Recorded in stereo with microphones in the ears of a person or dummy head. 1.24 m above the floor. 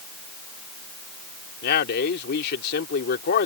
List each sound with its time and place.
1.6 s a man speaking: 55° left (ahead or behind)